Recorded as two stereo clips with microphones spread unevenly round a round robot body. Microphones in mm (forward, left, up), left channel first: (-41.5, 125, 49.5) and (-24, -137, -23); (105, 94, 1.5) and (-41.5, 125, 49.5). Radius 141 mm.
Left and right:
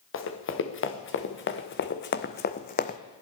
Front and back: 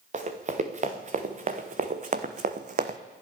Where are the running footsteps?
135° left, 2.5 m; by 3.0 s 150° left, 1.0 m.